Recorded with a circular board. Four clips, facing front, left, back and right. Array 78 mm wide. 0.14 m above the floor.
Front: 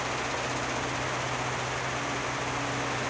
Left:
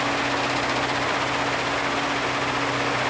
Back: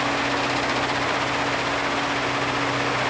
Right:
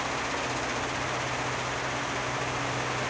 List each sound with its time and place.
Only background noise.